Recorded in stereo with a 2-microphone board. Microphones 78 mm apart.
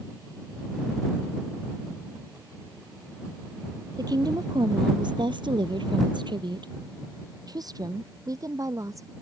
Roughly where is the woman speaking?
Right.